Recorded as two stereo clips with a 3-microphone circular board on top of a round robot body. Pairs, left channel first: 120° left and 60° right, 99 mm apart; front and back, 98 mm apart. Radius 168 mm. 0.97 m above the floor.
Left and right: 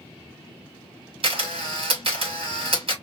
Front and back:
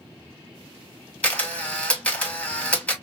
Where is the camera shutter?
80° right, 1.9 m.